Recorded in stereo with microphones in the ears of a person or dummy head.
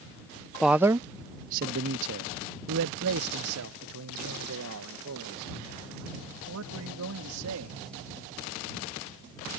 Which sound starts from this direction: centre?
A man speaking, at 0.6 s.